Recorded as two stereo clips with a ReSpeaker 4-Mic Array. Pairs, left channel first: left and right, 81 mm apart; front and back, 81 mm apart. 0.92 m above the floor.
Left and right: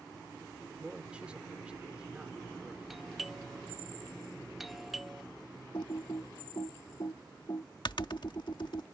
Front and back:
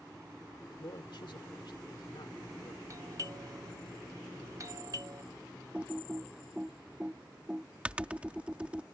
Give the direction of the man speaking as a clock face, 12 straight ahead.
12 o'clock.